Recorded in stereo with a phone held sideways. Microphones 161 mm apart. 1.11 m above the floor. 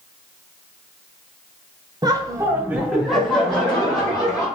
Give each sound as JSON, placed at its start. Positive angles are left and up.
{"t": 2.0, "sound": "laughter", "side_deg": -25, "distance_m": 0.7}